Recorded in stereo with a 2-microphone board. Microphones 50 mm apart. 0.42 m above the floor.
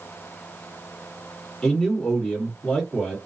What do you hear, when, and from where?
1.6 s a man speaking: 5° left (ahead or behind), 1.5 m